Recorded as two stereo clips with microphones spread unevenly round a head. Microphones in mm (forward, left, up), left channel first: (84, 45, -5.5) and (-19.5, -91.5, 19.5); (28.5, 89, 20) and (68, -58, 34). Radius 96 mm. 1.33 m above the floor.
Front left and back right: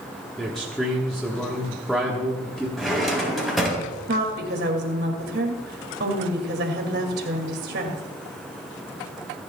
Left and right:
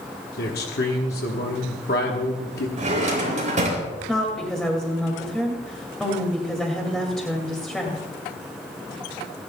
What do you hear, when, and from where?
0.4 s a man speaking: 140° left, 1.2 m
2.8 s a drawer: 40° right, 4.5 m
4.1 s a woman speaking: 170° right, 2 m